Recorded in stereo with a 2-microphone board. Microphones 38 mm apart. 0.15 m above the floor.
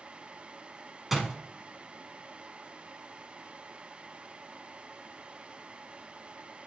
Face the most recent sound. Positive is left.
turn(degrees=-5)  # may be behind; listen again after turning